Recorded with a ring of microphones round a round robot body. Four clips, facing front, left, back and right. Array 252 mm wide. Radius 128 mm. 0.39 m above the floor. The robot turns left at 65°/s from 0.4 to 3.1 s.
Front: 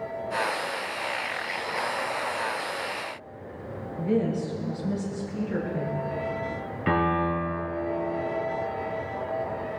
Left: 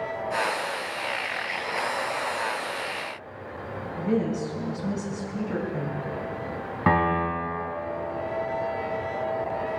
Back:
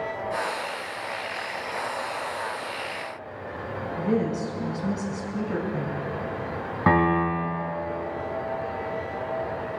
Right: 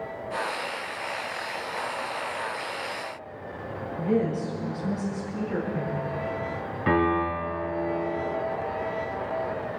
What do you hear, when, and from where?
4.0 s a woman speaking: 145° left, 4.5 m
6.9 s a piano: 145° left, 3 m